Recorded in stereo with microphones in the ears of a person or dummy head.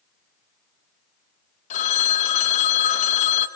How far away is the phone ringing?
About 1.7 m.